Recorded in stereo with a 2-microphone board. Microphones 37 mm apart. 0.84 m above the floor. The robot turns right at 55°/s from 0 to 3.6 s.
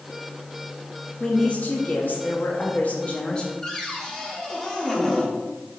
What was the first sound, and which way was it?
A woman speaking, 35° left.